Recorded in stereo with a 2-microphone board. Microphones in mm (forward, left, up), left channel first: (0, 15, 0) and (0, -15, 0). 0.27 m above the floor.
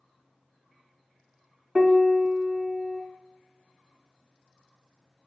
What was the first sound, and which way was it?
A piano, 25° right (ahead or behind).